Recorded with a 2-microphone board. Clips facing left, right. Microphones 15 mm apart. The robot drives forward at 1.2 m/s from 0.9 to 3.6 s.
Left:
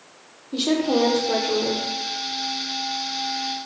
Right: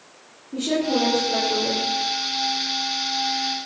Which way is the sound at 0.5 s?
70° left (ahead or behind).